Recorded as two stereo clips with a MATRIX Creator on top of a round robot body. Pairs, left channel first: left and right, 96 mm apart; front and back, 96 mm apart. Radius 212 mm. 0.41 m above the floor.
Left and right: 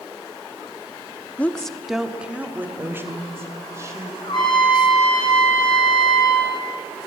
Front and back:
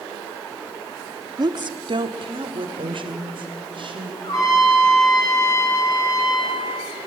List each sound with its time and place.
1.4 s a woman speaking: 160° left, 1.4 m; by 4.1 s 150° right, 4 m
4.2 s a trumpet: 50° left, 6.5 m